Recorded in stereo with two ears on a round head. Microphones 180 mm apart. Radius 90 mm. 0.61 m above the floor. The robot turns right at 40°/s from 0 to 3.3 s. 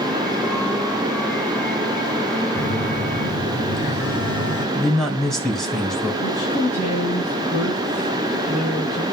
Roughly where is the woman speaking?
Left.